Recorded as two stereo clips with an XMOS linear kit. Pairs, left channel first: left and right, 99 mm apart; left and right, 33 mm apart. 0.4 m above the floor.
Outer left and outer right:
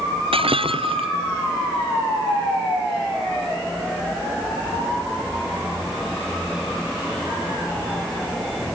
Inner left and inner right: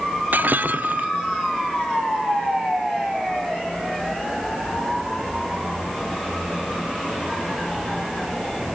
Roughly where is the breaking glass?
Right.